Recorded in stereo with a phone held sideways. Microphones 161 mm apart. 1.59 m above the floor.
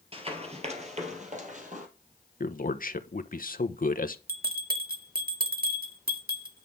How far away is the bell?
About 2 m.